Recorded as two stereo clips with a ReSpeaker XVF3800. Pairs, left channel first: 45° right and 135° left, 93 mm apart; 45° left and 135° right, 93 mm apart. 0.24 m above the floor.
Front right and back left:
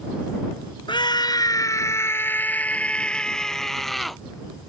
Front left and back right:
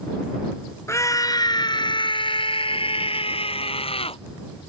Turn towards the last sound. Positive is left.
turn(degrees=45)